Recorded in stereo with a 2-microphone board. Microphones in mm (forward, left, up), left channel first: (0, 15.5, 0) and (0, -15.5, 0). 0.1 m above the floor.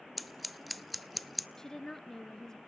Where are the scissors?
Centre (ahead or behind), 0.5 m.